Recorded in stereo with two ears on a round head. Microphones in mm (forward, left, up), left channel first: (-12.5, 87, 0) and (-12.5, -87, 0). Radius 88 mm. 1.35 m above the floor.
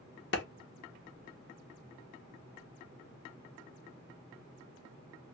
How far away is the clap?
About 0.9 m.